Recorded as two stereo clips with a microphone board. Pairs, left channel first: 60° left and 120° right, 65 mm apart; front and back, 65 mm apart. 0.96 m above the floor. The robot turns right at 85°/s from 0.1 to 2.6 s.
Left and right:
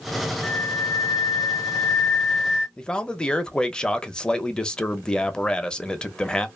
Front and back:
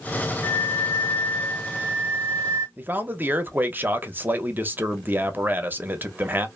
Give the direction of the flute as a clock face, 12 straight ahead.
12 o'clock.